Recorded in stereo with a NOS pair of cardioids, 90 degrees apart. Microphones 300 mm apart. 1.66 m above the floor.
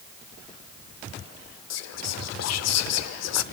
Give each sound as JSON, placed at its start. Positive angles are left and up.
{"t": 1.7, "sound": "whispering", "azimuth_deg": 65, "distance_m": 0.7}